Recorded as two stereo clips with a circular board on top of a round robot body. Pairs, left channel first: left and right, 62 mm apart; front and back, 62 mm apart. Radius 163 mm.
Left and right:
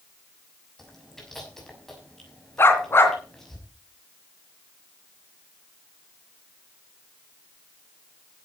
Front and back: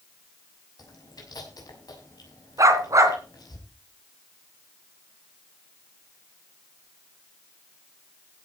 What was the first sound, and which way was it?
Chewing, 5° left.